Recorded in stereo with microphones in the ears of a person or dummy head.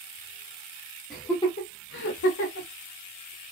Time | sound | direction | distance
1.1 | laughter | centre (ahead or behind) | 0.7 m